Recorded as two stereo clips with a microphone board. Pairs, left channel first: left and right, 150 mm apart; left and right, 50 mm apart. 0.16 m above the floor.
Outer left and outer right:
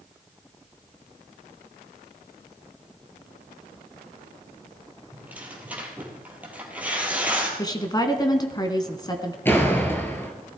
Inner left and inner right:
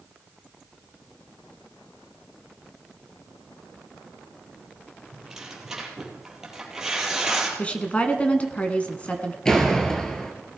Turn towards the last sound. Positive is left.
turn(degrees=15)  # may be behind; listen again after turning